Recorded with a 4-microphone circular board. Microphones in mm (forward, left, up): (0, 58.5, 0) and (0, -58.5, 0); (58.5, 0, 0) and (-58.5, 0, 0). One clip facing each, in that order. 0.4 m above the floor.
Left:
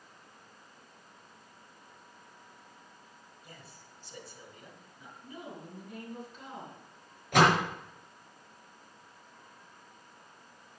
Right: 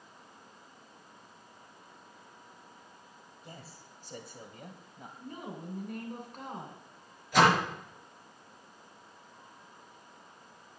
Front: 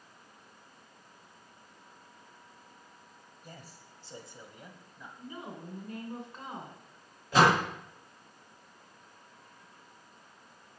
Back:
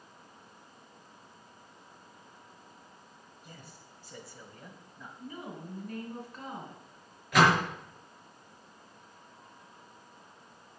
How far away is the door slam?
About 5 m.